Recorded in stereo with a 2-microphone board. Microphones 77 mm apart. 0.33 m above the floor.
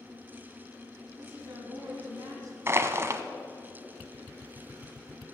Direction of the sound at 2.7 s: 35° right (ahead or behind).